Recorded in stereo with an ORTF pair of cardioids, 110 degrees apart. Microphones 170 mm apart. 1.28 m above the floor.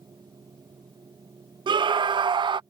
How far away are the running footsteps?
I don't hear running footsteps.